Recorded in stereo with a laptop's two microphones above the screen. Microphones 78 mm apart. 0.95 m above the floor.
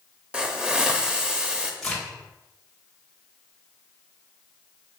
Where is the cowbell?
I don't hear a cowbell.